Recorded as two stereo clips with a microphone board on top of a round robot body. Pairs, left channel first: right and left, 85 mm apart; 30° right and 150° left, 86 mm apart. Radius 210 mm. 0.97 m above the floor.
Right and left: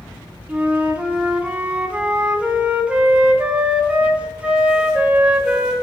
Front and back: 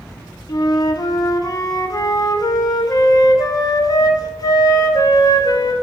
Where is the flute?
15° left, 0.5 m.